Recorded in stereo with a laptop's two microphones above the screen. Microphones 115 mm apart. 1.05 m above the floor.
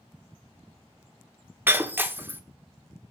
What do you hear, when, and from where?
1.7 s breaking glass: 20° right (ahead or behind), 1.0 m